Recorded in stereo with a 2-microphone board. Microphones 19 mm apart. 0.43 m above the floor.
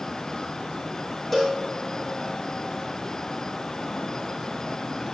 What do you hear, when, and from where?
1.3 s a cowbell: 15° left (ahead or behind), 6 m